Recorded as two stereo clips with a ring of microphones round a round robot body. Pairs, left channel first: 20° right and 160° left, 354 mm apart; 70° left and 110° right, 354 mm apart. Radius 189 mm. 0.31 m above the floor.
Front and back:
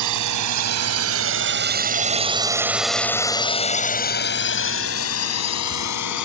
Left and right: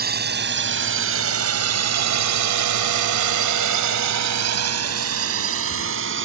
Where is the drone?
175° right; by 6.2 s 55° right.